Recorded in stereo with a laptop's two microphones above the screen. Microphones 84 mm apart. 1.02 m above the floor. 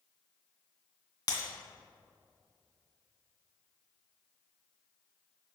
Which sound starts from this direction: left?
Breaking glass, at 1.3 s.